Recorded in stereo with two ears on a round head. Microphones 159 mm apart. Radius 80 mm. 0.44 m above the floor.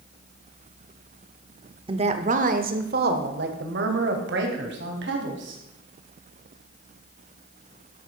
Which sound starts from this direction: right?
A woman speaking, at 1.9 s.